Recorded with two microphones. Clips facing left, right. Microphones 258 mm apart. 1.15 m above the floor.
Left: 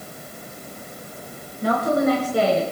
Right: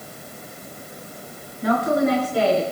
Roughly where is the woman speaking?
Left.